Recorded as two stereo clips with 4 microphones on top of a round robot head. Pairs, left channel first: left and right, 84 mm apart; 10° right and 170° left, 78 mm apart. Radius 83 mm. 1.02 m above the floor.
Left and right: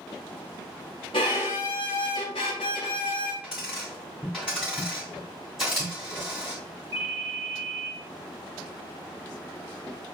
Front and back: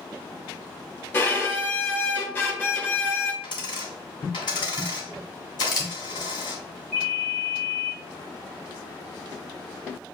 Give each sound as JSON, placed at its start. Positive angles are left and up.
{"t": 1.1, "sound": "a violin", "azimuth_deg": 55, "distance_m": 0.6}
{"t": 3.4, "sound": "a dropped coin", "azimuth_deg": -5, "distance_m": 1.0}
{"t": 5.6, "sound": "a camera shutter", "azimuth_deg": 0, "distance_m": 0.8}
{"t": 6.9, "sound": "a ringtone", "azimuth_deg": -70, "distance_m": 2.0}